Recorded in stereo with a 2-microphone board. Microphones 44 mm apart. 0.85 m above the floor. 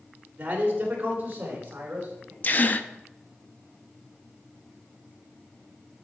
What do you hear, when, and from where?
0.4 s a man speaking: 35° right (ahead or behind), 2.5 m
2.4 s a gasp: 35° left (ahead or behind), 0.6 m